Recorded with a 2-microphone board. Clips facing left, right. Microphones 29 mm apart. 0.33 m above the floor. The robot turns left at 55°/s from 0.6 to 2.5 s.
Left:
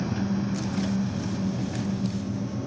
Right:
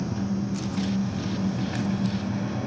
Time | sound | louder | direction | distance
0.0 | an engine running | left 1 dB | 35° left | 0.9 m